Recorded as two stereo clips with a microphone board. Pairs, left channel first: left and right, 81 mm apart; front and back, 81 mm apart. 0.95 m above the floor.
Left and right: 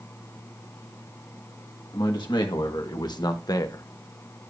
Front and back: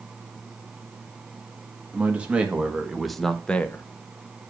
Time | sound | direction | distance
1.9 | a man speaking | 110° left | 1.5 m